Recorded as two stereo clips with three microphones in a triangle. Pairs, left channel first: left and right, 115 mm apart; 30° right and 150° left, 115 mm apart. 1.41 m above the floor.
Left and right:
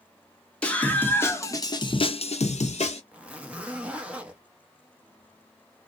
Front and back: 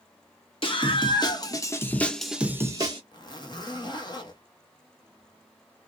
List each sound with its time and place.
0.6 s a scream: 10° left, 1.2 m; by 3.0 s 105° left, 0.6 m
3.1 s a zipper: 15° right, 0.8 m